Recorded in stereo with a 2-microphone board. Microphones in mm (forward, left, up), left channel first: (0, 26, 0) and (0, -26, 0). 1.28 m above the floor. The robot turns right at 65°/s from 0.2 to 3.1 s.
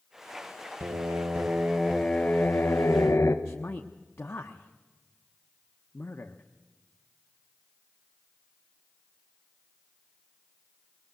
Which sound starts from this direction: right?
Singing, at 0.8 s.